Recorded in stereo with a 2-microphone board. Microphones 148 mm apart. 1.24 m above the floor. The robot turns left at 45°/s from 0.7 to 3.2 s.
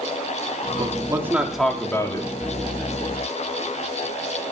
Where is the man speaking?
145° right, 3.5 m; by 2.3 s 145° left, 3.5 m.